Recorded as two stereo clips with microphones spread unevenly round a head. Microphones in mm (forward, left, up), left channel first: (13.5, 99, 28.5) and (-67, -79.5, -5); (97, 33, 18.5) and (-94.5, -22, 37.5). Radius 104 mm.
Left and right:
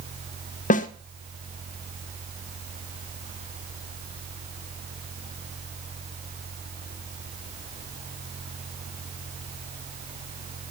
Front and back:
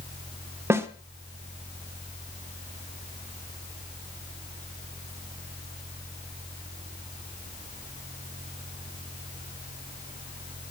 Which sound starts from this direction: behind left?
A snare drum, at 0.7 s.